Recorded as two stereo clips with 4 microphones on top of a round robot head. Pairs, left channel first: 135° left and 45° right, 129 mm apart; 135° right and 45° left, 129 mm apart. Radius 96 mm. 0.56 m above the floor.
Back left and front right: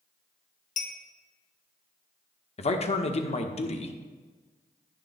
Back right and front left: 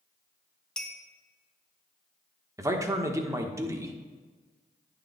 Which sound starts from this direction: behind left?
A clink, at 0.8 s.